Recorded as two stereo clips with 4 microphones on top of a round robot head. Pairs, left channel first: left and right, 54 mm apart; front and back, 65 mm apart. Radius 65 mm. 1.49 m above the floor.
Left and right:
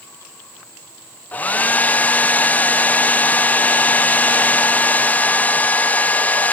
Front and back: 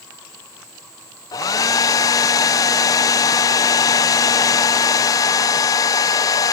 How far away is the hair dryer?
About 0.6 m.